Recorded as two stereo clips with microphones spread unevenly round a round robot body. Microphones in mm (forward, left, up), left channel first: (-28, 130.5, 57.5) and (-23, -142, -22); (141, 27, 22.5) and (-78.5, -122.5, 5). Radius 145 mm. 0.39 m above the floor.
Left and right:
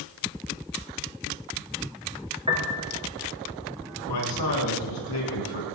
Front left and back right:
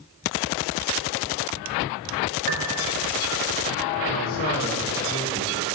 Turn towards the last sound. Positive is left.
turn(degrees=95)